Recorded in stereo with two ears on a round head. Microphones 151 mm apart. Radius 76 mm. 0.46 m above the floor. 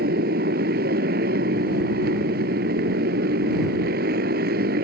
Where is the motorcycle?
60° right (ahead or behind).